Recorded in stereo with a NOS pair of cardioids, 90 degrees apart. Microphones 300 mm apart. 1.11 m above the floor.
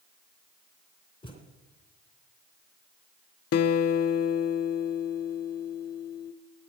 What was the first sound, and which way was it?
A thud, 15° left.